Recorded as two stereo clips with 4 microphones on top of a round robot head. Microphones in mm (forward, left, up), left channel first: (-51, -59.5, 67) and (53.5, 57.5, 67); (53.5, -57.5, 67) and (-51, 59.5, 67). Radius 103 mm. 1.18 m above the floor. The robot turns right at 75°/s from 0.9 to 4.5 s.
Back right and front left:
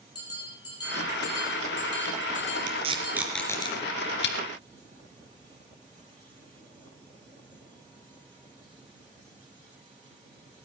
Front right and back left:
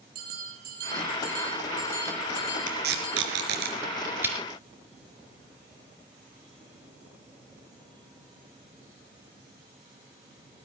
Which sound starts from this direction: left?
Tape being pulled, at 2.7 s.